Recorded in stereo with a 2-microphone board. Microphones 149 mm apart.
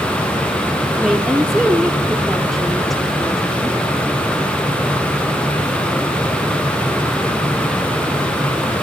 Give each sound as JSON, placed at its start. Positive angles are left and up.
{"t": 1.0, "sound": "a woman speaking", "side_deg": 0, "distance_m": 2.5}